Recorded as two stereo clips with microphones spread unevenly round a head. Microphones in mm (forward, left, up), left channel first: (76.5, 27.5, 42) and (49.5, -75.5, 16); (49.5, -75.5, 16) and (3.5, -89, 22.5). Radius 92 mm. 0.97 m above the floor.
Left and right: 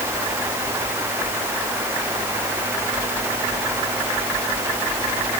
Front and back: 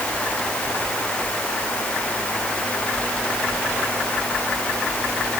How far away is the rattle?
No rattle in this recording.